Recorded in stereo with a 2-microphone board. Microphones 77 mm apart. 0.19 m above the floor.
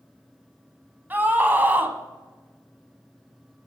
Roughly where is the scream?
Right.